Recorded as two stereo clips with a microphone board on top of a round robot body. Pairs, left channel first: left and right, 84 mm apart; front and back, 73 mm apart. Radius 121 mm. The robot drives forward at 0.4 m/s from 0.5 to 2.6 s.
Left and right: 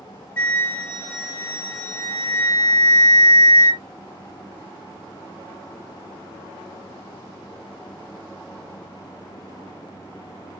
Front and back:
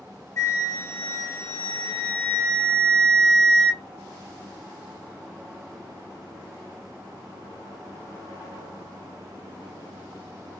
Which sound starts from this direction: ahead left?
A flute, at 0.4 s.